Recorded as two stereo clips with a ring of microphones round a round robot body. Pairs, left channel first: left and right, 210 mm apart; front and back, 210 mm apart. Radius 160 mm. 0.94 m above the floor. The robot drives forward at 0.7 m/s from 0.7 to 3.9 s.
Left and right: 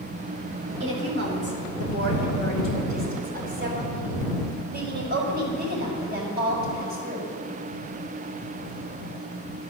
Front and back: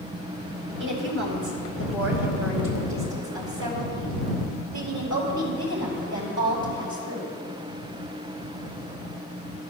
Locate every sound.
0.8 s a woman speaking: 135° right, 2.5 m; by 7.3 s 155° right, 4.5 m